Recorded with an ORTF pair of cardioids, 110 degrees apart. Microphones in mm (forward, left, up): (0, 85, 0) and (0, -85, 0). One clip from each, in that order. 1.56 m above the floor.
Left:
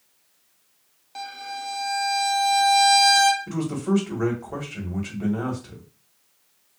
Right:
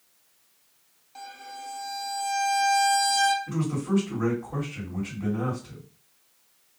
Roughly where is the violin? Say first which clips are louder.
Left 7 dB; ahead left.